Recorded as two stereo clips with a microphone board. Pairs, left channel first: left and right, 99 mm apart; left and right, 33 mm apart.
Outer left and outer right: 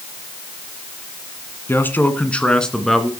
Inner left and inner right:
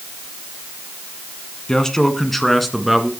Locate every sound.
1.7 s a man speaking: 25° left (ahead or behind), 1.9 m; by 3.1 s centre (ahead or behind), 2.5 m